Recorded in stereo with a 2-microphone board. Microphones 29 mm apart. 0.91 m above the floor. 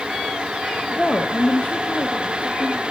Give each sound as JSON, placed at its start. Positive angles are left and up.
{"t": 0.9, "sound": "a woman speaking", "side_deg": 30, "distance_m": 0.5}